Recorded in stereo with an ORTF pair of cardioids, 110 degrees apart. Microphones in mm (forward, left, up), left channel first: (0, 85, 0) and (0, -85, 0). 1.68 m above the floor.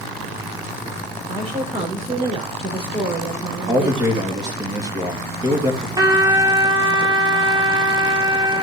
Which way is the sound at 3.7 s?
25° right.